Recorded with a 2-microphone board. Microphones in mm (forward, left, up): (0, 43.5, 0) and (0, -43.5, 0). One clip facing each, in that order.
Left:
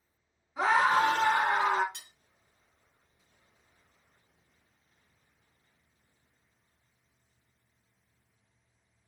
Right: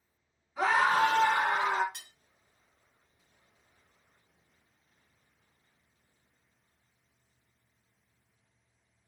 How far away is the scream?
About 1.8 m.